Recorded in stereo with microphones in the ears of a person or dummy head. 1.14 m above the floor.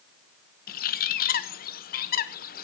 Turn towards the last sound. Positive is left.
turn(degrees=40)  # may be behind; listen again after turning